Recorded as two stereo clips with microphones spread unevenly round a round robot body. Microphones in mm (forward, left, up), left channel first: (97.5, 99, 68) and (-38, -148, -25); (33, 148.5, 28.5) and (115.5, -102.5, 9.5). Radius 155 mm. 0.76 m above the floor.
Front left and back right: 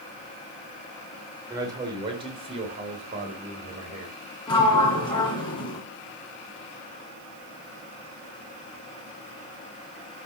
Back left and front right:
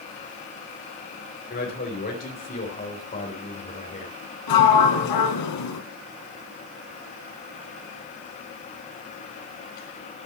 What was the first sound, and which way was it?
A man speaking, 170° left.